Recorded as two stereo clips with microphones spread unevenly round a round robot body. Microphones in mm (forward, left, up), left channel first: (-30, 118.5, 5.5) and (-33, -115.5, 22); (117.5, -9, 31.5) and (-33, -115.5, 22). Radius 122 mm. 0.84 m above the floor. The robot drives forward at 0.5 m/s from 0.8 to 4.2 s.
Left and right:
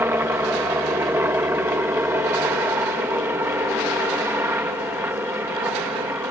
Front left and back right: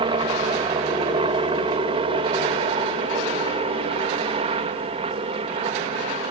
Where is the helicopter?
165° right.